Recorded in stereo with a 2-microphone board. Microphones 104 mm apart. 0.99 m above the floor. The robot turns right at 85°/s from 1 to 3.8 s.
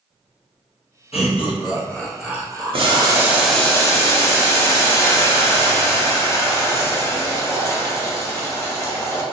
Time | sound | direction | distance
1.1 | laughter | 75° left (ahead or behind) | 0.9 m
2.7 | boiling | 65° right | 0.6 m